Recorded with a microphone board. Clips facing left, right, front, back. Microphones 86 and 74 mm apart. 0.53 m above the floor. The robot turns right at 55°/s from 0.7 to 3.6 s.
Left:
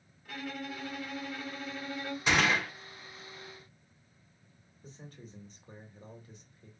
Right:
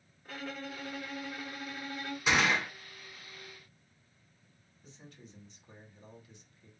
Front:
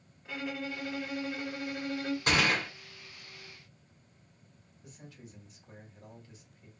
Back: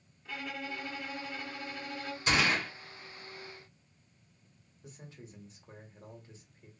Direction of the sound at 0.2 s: 60° right.